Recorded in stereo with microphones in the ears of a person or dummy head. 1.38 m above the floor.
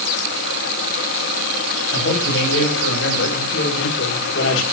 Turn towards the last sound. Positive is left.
turn(degrees=80)